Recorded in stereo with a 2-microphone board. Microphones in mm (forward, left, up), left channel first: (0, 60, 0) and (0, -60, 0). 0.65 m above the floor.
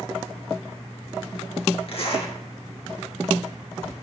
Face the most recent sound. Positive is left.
turn(degrees=55)  # may be behind; listen again after turning